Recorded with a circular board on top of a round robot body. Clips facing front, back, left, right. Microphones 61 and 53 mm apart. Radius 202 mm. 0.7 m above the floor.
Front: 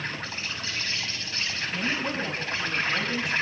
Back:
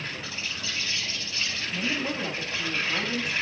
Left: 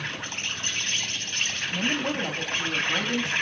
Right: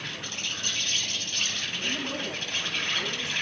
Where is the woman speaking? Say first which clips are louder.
Front 1 dB, left 5 dB; 90° left, 6 m.